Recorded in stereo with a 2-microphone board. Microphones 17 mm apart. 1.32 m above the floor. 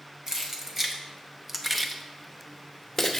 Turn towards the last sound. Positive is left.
turn(degrees=15)  # may be behind; listen again after turning